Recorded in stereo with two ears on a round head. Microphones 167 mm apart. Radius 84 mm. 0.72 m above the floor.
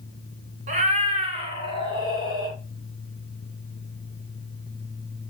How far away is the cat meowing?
About 2.5 m.